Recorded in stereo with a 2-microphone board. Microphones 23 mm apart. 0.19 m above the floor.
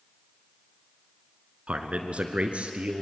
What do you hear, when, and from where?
1.7 s a man speaking: 55° right (ahead or behind), 2 m; by 3.0 s 50° right (ahead or behind), 3.5 m